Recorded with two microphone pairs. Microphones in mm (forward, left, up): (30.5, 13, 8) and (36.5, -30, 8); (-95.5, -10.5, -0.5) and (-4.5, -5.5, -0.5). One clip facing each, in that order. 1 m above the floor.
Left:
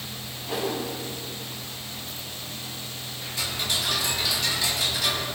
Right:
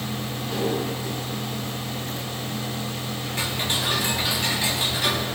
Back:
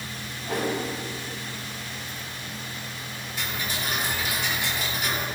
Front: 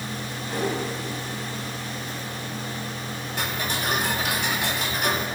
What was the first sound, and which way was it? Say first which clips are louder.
A whoosh: right 2 dB, even; straight behind.